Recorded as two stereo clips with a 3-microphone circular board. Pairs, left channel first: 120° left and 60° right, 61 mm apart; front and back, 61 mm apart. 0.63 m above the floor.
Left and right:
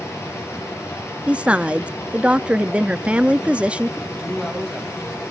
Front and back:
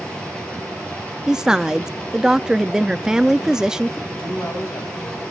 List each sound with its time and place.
0.0 s running water: 75° left, 6.5 m
1.3 s a woman speaking: 110° right, 0.6 m
4.1 s a man speaking: 35° left, 4 m